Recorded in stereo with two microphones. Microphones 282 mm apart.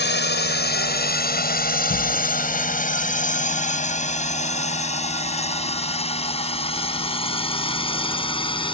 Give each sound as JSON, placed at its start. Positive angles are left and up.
{"t": 0.0, "sound": "a drone", "side_deg": 40}